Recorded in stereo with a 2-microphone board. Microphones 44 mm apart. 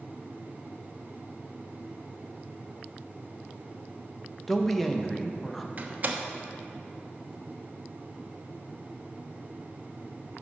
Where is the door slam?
40° right (ahead or behind), 1.0 m.